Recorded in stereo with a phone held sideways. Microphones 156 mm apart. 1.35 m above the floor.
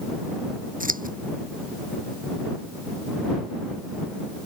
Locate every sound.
0.8 s scissors: 60° right (ahead or behind)